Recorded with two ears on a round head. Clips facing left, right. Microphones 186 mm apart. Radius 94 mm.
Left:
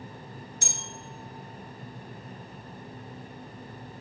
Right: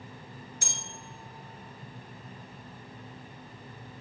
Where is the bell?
85° left, 1.9 m.